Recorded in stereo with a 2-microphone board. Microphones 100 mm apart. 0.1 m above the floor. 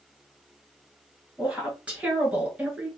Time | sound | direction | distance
1.4 | a woman speaking | 15° right (ahead or behind) | 1.4 m